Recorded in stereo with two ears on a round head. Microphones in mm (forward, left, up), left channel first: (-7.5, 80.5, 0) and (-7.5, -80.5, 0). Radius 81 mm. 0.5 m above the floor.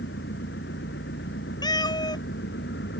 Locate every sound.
0.0 s an engine running: 60° left (ahead or behind)
1.6 s a cat meowing: 25° left (ahead or behind)